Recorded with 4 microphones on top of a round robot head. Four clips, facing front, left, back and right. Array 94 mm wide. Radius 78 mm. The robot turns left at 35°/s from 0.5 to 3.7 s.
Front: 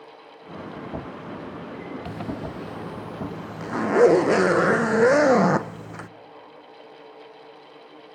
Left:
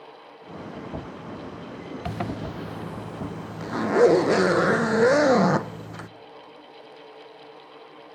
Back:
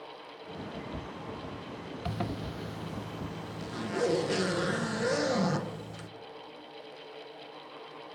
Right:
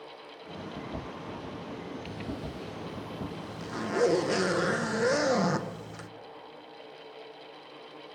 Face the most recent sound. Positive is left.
turn(degrees=35)